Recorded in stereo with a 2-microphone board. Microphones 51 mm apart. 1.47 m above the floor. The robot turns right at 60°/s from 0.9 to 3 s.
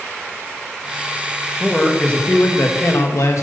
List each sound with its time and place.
1.6 s a man speaking: 5° right, 2.5 m; by 3.4 s 80° left, 2.5 m